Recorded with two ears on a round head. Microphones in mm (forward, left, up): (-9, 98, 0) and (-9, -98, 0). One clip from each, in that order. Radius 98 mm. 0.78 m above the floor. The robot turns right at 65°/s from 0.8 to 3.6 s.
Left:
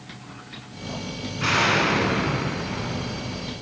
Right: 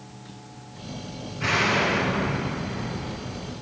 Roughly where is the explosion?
Ahead.